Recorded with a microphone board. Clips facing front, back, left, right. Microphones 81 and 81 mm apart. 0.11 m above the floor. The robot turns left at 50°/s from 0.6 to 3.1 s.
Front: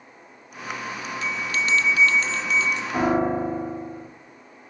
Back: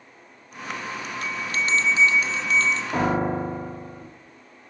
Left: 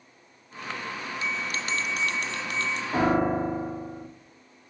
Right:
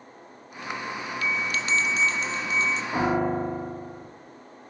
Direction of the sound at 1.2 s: 155° left.